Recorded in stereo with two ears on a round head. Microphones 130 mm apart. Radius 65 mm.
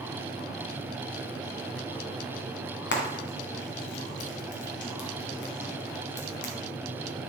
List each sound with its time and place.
2.9 s frying: 80° left, 2.0 m